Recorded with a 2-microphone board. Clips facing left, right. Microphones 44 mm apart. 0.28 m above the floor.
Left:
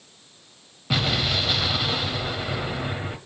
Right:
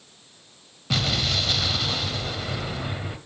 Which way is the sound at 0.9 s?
10° left (ahead or behind).